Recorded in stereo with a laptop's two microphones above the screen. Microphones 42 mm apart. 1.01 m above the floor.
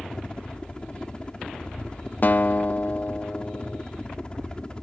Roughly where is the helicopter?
Left.